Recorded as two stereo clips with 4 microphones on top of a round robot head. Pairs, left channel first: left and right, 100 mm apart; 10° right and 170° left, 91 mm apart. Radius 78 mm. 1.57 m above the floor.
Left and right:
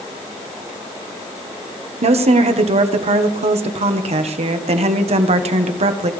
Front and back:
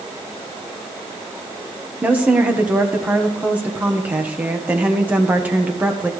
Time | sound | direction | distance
2.0 | a woman speaking | 110° right | 1.3 m